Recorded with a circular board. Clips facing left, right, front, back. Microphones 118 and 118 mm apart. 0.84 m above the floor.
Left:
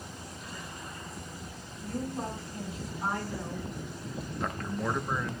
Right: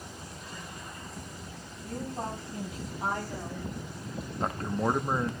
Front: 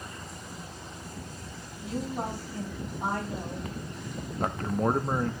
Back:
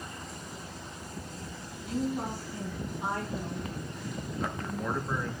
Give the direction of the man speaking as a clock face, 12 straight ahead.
1 o'clock.